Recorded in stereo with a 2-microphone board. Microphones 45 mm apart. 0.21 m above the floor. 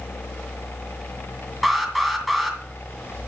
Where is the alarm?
Centre (ahead or behind), 2 m.